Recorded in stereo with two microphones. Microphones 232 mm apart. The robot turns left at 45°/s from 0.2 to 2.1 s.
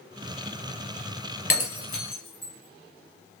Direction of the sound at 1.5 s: 70° left (ahead or behind).